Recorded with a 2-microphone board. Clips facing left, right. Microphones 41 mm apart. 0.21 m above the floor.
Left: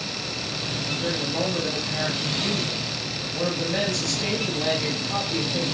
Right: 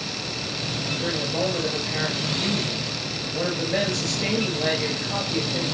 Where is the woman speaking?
35° right (ahead or behind), 4.5 m.